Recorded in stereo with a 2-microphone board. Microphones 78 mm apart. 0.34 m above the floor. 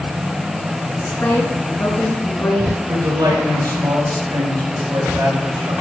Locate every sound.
1.0 s a woman speaking: 35° left (ahead or behind), 3.5 m
2.9 s a man speaking: 60° right (ahead or behind), 4.5 m